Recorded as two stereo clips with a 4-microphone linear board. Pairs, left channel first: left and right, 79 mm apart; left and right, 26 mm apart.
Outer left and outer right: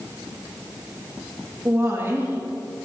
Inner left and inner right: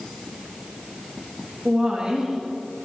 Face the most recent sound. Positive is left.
turn(degrees=-30)  # may be behind; listen again after turning